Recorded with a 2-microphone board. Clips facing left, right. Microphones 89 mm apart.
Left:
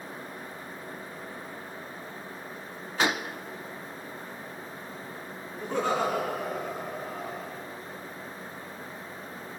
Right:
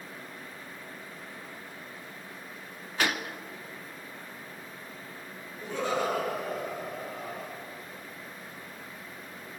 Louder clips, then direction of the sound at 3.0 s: Left 3 dB; 20° left (ahead or behind).